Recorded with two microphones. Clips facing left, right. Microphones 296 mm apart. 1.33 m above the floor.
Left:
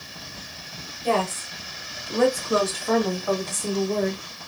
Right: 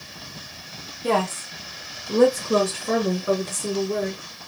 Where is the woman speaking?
75° right (ahead or behind), 1.3 m; by 4.2 s 10° right (ahead or behind), 1.9 m.